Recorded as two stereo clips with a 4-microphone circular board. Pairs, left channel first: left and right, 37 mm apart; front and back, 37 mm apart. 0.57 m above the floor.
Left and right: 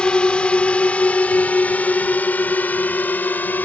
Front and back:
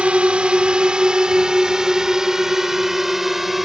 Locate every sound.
0.0 s a drone: 140° left; by 3.6 s 95° left